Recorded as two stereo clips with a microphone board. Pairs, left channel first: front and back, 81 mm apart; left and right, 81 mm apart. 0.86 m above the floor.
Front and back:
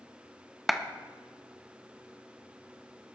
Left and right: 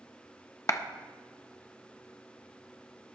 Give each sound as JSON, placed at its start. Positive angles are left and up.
{"t": 0.7, "sound": "a clap", "azimuth_deg": 90, "distance_m": 0.8}